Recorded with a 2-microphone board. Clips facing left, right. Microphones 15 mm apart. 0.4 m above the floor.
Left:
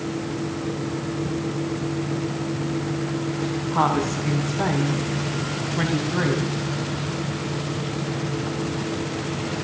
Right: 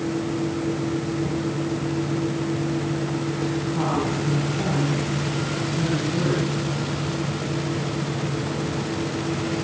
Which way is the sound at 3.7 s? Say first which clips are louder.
Left 6 dB; 65° left (ahead or behind).